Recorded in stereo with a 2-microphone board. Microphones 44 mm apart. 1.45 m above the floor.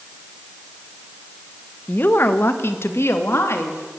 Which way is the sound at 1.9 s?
45° left (ahead or behind).